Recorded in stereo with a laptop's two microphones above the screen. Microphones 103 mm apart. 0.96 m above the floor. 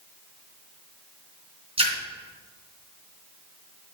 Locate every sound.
1.8 s a splash: 70° right (ahead or behind), 3 m